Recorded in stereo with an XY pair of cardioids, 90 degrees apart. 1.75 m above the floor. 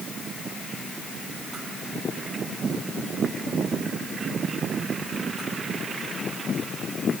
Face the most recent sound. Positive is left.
No sound to turn to.